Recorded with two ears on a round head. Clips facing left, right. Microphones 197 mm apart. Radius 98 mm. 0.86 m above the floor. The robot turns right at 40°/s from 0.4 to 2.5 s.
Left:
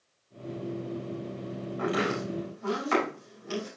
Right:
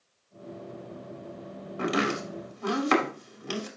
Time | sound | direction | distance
1.8 | chopping | 55° right (ahead or behind) | 2.5 m